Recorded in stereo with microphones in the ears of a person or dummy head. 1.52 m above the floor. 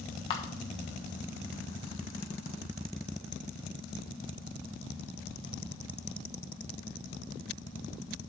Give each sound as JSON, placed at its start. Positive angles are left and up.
{"t": 0.3, "sound": "a camera shutter", "side_deg": 30, "distance_m": 1.2}